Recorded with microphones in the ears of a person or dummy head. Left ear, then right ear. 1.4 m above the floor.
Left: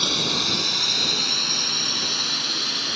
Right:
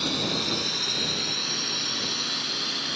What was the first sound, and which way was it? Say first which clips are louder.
A drone: left 5 dB; 15° left (ahead or behind).